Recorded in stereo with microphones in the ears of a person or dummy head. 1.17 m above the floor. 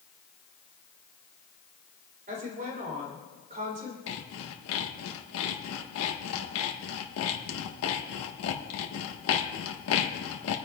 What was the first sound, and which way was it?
A woman speaking, 35° right (ahead or behind).